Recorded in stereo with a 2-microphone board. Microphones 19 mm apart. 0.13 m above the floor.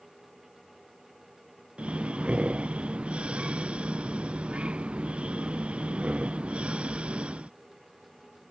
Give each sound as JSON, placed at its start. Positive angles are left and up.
{"t": 1.8, "sound": "breathing", "side_deg": -70}